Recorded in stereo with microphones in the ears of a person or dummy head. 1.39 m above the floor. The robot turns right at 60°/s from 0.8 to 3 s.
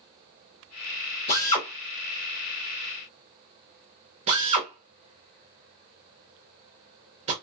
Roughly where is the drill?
Left.